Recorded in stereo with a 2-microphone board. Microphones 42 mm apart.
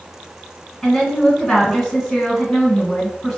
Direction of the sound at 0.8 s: 15° left (ahead or behind).